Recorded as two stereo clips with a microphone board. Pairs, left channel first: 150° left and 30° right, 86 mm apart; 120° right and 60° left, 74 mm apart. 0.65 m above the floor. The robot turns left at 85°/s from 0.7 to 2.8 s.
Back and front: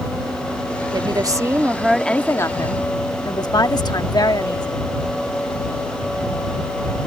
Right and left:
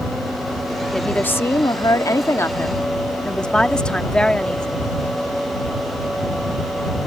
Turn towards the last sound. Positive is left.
turn(degrees=165)